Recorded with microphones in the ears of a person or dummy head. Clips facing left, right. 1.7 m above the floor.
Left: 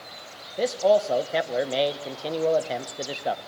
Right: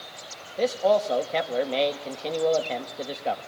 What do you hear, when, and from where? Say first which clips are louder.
0.6 s a man speaking: left 1 dB; 10° left (ahead or behind), 1.6 m